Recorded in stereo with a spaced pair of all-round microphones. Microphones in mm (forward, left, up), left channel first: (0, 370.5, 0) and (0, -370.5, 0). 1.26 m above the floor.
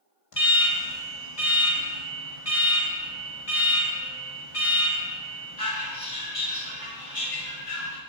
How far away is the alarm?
About 2.5 m.